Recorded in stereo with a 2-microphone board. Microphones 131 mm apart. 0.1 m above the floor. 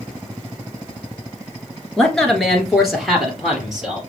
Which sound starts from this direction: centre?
A man speaking, at 2.0 s.